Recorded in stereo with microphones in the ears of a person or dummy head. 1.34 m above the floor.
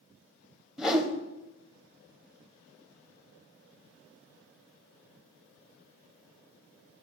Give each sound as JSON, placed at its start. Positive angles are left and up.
{"t": 0.8, "sound": "a whoosh", "side_deg": -5, "distance_m": 0.6}